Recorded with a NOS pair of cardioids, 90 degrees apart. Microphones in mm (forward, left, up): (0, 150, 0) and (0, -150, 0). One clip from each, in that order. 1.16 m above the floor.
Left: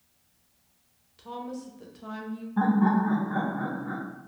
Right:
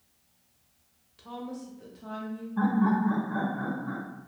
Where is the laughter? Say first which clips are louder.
Left 2 dB; 20° left, 0.8 m.